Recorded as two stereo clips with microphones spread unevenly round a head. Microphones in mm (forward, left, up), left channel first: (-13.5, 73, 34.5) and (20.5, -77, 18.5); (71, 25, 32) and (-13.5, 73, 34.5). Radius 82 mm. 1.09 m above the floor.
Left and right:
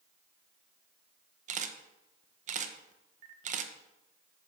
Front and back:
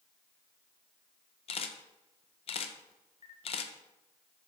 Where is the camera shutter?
40° right, 0.6 m.